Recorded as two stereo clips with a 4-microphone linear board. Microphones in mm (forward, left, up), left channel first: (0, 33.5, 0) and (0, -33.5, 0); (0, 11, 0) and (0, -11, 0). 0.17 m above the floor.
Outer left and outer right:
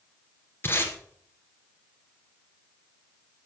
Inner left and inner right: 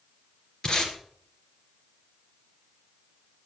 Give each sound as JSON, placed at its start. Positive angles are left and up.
{"t": 0.6, "sound": "tape being pulled", "side_deg": 35, "distance_m": 2.0}